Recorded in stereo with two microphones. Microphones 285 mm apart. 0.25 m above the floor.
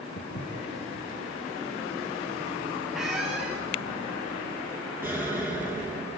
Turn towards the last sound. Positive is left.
turn(degrees=-5)  # may be behind; listen again after turning